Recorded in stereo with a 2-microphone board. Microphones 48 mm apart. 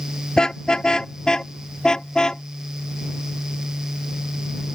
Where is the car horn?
15° left (ahead or behind).